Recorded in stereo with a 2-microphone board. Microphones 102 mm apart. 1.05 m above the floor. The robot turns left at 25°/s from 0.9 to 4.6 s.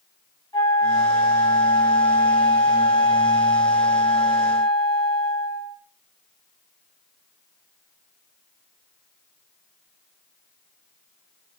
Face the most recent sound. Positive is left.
turn(degrees=45)